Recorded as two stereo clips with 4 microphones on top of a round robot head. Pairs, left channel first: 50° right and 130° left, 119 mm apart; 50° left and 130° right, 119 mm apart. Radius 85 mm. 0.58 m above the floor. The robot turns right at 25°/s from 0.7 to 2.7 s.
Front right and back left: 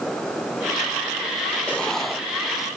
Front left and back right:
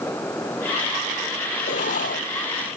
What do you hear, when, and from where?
1.7 s writing: 30° left; by 2.7 s 55° left